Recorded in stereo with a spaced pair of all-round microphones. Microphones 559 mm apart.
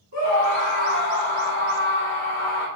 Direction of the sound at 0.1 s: 30° right (ahead or behind).